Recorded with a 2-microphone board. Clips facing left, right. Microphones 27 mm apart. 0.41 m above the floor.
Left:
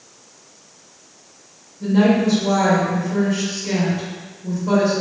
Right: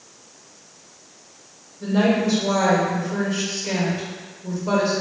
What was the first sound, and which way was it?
A woman speaking, 10° right (ahead or behind).